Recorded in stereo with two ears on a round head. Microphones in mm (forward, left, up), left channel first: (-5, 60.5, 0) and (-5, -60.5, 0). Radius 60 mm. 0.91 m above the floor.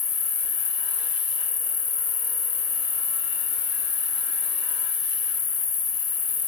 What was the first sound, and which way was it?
An insect, 15° left (ahead or behind).